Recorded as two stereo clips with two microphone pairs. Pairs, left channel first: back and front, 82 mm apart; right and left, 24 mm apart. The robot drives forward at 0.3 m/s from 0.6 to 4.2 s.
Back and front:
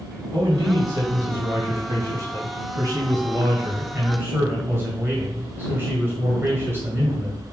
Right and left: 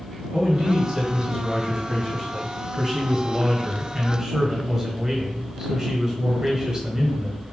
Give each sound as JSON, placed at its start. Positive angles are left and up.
{"t": 0.3, "sound": "a man speaking", "azimuth_deg": 20, "distance_m": 2.5}